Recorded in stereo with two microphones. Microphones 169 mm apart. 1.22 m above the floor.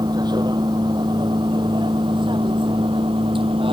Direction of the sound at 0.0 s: 25° right (ahead or behind).